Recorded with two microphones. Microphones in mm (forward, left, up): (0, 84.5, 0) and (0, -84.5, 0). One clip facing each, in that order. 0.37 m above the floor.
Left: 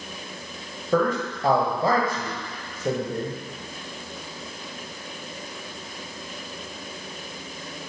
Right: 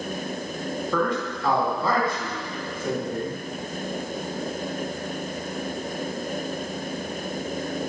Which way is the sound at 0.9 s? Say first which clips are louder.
Left 4 dB; 45° left (ahead or behind).